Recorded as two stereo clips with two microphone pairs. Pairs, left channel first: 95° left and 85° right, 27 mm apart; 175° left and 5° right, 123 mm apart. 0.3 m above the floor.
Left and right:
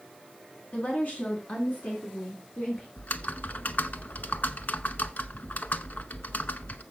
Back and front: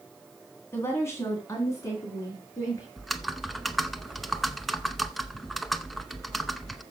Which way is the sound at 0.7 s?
110° left.